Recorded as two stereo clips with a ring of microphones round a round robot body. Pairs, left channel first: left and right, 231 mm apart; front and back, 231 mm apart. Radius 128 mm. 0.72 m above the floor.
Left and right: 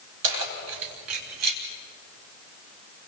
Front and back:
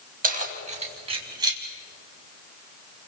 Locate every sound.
0.2 s keys jangling: 130° right, 4 m; by 1.6 s 105° right, 4 m